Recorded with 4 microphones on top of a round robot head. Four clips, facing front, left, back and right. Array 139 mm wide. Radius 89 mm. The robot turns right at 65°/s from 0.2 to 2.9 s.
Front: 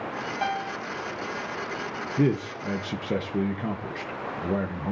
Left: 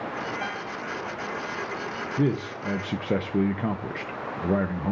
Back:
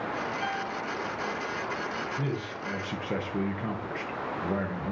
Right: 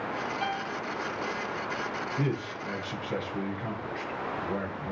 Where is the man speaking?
25° left, 0.6 m; by 4.9 s 70° left, 0.6 m.